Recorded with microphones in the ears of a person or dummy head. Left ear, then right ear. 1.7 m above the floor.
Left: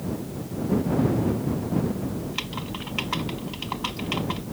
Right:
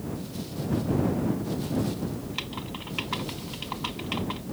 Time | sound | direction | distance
2.2 | typing on a keyboard | 5° left (ahead or behind) | ?